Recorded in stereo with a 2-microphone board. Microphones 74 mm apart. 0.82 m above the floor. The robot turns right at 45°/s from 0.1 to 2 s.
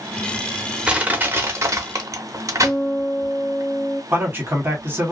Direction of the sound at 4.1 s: 30° right (ahead or behind).